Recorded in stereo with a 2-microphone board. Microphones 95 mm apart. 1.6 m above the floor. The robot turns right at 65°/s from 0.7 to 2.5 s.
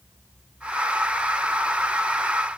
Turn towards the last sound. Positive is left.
No sound to turn to.